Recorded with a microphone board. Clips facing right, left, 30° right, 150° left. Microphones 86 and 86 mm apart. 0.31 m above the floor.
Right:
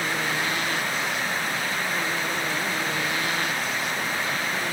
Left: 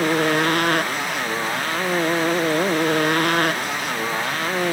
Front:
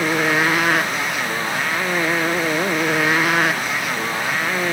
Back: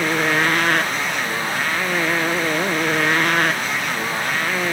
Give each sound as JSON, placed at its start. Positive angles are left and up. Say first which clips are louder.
{"t": 0.0, "sound": "a motorcycle", "louder": "left 8 dB, front 1 dB", "azimuth_deg": 55}